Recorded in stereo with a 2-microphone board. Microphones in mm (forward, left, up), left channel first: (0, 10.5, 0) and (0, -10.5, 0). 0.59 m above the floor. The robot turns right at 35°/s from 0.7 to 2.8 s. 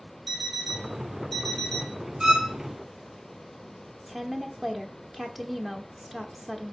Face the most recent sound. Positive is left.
turn(degrees=-10)  # may be behind; listen again after turning